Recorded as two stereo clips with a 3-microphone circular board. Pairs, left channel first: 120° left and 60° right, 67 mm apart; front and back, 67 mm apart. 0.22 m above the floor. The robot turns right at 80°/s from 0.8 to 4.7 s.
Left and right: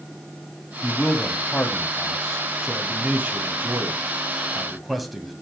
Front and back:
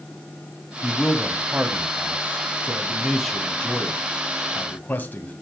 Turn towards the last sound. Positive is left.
turn(degrees=30)